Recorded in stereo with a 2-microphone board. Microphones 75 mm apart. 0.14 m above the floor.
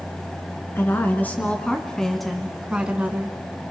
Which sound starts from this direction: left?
A woman speaking, at 0.8 s.